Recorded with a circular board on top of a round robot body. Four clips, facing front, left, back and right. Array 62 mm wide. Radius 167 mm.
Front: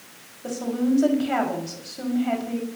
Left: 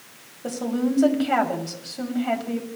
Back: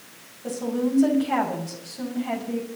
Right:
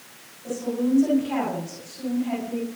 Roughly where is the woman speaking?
Left.